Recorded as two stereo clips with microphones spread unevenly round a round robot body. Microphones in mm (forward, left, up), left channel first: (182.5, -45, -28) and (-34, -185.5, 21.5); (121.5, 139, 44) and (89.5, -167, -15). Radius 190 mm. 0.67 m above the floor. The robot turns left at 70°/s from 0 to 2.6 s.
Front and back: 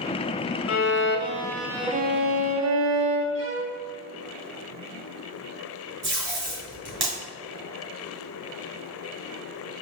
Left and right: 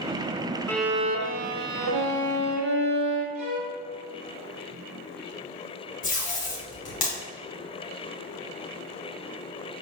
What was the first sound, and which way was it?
A violin, 5° left.